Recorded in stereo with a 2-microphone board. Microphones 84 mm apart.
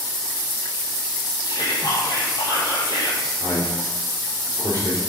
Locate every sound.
1.5 s whispering: 55° left (ahead or behind), 3 m
3.4 s a man speaking: 35° right (ahead or behind), 4.5 m